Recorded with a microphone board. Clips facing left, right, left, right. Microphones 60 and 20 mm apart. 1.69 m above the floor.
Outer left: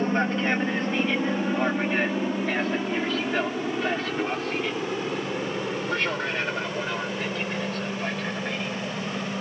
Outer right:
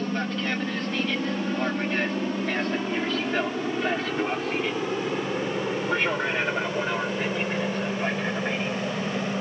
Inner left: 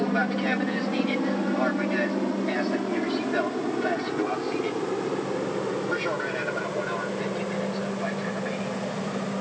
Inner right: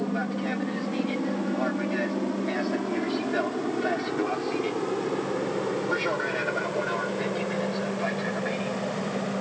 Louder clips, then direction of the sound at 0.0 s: Outer left 4 dB, inner left 4 dB; 30° left (ahead or behind).